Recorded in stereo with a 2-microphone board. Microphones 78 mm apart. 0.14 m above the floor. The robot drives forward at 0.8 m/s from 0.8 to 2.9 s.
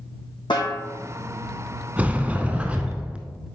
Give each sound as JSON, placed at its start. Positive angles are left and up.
{"t": 0.5, "sound": "a snare drum", "side_deg": 80, "distance_m": 3.0}
{"t": 2.0, "sound": "a sliding door", "side_deg": -20, "distance_m": 0.7}